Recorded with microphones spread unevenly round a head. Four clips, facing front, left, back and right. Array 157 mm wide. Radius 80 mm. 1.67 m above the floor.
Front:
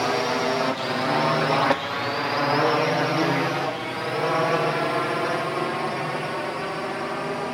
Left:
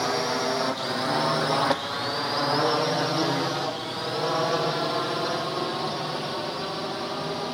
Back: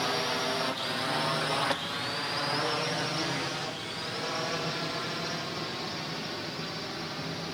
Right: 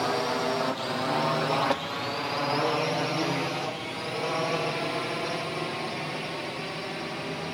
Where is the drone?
5° left; by 7.5 s 20° left.